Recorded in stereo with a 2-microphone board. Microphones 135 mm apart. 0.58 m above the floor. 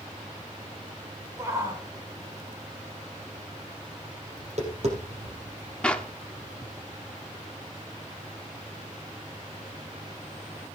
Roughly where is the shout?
Right.